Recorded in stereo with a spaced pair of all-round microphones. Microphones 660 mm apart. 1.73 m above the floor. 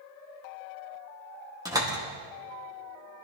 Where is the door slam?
5° right (ahead or behind), 2 m.